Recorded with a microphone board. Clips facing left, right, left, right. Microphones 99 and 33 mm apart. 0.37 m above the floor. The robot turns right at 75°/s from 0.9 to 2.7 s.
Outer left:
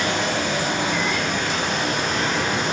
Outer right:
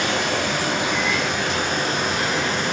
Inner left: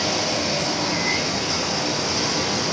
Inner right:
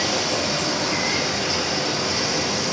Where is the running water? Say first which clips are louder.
Even, even; 105° right, 1.6 m; by 2.7 s 30° left, 1.6 m.